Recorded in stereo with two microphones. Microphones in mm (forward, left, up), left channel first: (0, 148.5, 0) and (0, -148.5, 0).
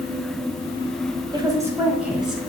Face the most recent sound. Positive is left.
turn(degrees=0)  # may be behind; listen again after turning